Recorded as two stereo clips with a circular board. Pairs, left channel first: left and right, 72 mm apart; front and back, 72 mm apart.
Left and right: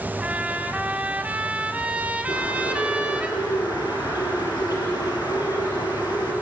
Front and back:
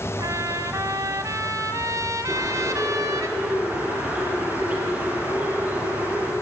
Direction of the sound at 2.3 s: 110° left.